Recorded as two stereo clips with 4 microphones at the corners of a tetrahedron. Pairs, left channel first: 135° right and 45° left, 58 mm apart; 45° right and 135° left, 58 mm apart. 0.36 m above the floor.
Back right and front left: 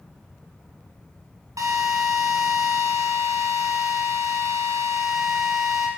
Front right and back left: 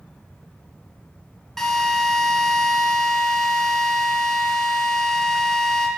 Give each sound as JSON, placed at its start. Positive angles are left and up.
{"t": 1.6, "sound": "a drill", "azimuth_deg": 35, "distance_m": 2.0}